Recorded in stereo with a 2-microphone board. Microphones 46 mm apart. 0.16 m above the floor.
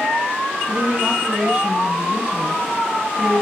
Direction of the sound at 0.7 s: 15° right (ahead or behind).